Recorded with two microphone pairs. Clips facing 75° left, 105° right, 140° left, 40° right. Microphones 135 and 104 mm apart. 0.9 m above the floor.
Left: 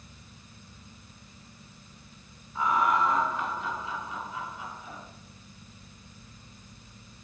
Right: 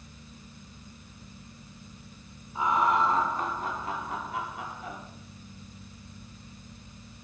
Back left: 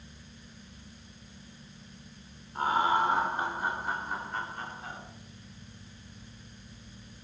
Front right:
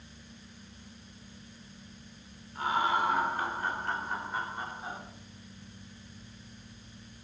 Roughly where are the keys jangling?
I don't hear keys jangling.